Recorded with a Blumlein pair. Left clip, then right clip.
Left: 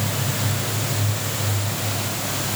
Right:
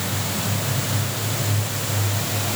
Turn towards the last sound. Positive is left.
No sound to turn to.